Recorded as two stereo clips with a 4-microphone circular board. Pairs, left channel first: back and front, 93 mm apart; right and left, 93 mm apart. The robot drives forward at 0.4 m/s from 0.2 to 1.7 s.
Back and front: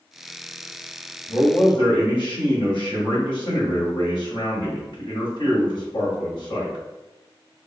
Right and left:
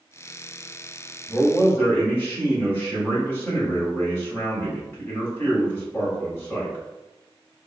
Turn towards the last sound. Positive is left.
turn(degrees=-155)